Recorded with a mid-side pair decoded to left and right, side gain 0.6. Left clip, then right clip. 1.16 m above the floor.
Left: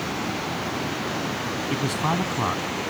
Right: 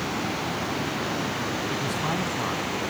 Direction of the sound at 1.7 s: 30° left.